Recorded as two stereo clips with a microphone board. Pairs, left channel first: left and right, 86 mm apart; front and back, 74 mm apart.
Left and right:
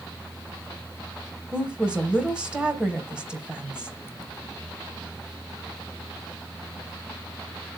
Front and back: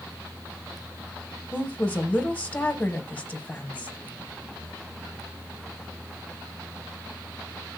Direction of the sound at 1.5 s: 35° right.